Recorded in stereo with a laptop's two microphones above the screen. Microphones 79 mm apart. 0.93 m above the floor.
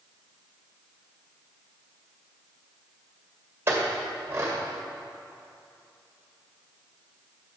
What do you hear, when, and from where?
3.7 s a clink: 30° right (ahead or behind), 1.9 m